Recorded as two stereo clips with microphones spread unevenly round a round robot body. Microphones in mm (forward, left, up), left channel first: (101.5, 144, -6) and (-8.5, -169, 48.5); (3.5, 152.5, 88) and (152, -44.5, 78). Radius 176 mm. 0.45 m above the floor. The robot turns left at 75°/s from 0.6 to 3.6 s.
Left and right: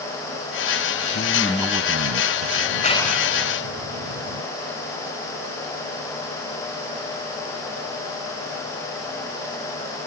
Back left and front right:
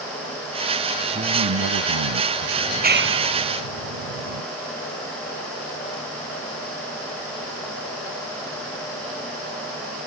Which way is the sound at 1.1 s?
10° left.